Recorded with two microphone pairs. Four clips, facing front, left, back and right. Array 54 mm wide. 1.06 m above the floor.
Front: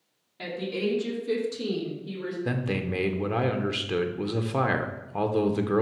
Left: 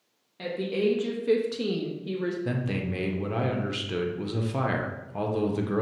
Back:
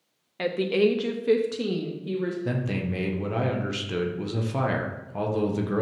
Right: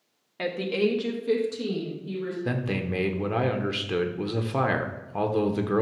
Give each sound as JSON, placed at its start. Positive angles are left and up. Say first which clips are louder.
{"t": 0.4, "sound": "a woman speaking", "louder": "right 2 dB, back 7 dB", "azimuth_deg": -145, "distance_m": 1.1}
{"t": 2.5, "sound": "a man speaking", "louder": "right 1 dB, even", "azimuth_deg": -55, "distance_m": 0.6}